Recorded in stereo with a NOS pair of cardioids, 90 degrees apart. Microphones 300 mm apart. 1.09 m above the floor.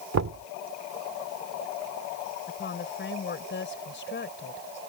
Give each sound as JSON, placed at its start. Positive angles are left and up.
{"t": 0.1, "sound": "knocking", "azimuth_deg": -65}
{"t": 2.5, "sound": "a woman speaking", "azimuth_deg": 40}